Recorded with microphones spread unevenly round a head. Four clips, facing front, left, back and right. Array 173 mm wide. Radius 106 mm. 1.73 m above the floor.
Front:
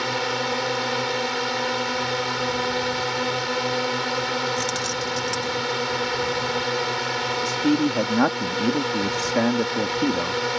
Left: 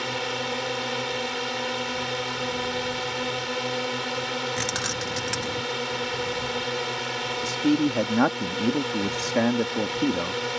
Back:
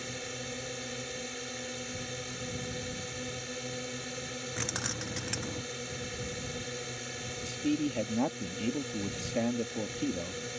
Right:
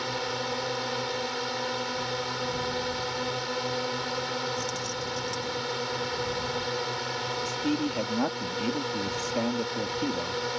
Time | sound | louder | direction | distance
0.0 | a drone | left 2 dB, front 16 dB | 15° left | ?
4.6 | keys jangling | left 3 dB, front 12 dB | 115° left | ?
7.4 | a man speaking | left 8 dB, front 9 dB | 40° left | ?